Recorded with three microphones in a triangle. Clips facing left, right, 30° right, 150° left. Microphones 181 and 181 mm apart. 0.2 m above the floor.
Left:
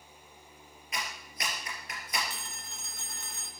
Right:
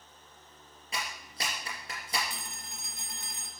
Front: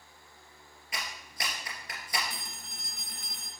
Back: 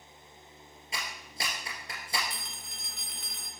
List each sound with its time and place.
0.9 s a clap: 145° right, 3 m
2.3 s a phone ringing: 20° right, 1.4 m